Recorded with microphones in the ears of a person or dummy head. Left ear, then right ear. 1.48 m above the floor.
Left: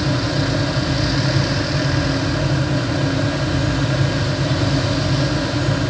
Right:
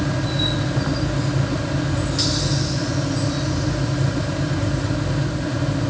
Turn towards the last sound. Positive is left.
No sound to turn to.